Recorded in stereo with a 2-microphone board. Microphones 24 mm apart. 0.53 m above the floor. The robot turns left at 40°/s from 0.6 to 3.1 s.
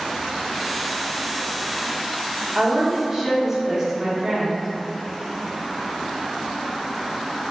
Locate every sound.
2.5 s a woman speaking: 25° right (ahead or behind), 0.7 m; by 4.7 s 15° right (ahead or behind), 0.7 m